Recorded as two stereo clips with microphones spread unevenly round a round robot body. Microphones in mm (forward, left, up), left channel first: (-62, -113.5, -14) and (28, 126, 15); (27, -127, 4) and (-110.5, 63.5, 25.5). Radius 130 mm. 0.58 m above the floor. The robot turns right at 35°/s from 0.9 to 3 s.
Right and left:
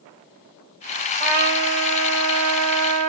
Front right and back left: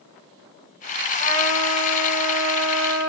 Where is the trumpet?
15° left, 0.7 m; by 3.1 s 75° left, 0.7 m.